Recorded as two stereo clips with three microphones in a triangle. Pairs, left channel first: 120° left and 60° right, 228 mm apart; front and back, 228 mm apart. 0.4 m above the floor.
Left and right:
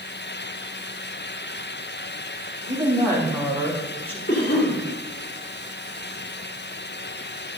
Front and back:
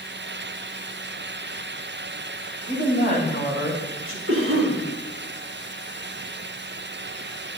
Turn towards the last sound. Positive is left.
turn(degrees=160)